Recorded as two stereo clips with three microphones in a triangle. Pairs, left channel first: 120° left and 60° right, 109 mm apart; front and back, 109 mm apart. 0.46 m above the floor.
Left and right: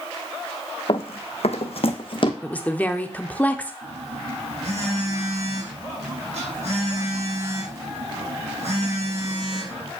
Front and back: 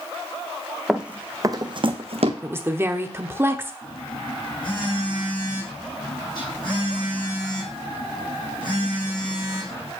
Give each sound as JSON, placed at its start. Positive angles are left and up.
{"t": 0.9, "sound": "running footsteps", "azimuth_deg": 95, "distance_m": 1.1}
{"t": 2.4, "sound": "a woman speaking", "azimuth_deg": 170, "distance_m": 0.9}
{"t": 3.8, "sound": "a phone buzzing", "azimuth_deg": -45, "distance_m": 5.5}